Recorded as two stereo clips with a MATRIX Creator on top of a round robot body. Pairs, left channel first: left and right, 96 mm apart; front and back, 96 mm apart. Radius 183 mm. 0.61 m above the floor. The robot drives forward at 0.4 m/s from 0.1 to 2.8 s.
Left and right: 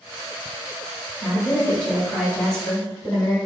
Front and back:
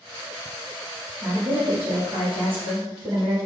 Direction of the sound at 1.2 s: 165° left.